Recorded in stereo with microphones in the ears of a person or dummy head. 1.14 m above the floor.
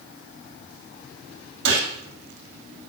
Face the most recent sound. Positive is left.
turn(degrees=-70)  # may be behind; listen again after turning